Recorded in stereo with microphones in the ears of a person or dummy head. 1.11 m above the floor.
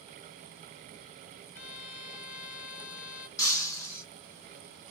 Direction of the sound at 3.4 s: 20° left (ahead or behind).